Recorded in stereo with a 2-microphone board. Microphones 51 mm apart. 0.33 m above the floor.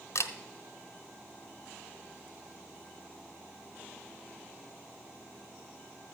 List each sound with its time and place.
0.1 s a camera shutter: 70° left (ahead or behind), 1.0 m